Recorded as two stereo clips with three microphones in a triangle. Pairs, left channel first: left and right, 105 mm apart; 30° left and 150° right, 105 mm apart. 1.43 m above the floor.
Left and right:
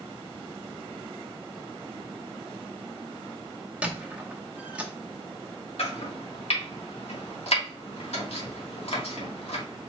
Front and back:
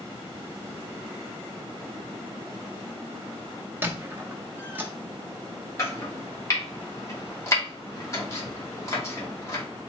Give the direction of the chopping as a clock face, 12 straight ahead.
9 o'clock.